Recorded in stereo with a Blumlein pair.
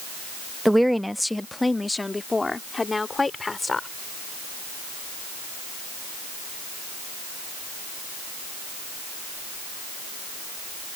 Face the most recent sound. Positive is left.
turn(degrees=10)